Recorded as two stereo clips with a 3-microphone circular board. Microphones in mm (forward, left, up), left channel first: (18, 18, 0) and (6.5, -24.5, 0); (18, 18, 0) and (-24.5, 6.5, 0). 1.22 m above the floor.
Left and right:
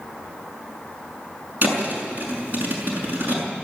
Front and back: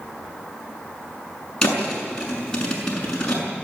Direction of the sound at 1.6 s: 65° right.